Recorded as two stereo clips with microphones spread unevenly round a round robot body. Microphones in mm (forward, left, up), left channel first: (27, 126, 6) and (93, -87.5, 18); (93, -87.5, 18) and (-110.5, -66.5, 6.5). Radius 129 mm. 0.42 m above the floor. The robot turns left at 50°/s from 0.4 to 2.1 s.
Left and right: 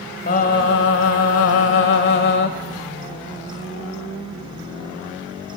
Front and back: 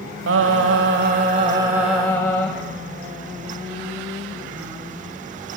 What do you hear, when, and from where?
0.3 s singing: 160° left, 0.9 m; by 2.5 s 75° left, 0.9 m